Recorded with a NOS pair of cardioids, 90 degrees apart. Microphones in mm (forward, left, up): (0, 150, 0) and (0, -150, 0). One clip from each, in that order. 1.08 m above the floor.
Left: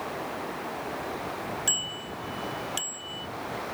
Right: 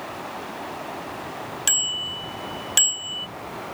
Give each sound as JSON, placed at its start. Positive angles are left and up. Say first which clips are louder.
{"t": 1.7, "sound": "a bicycle bell", "louder": "right 9 dB", "azimuth_deg": -65}